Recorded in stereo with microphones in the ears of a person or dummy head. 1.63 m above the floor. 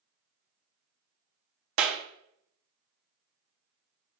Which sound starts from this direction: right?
A clap, at 1.8 s.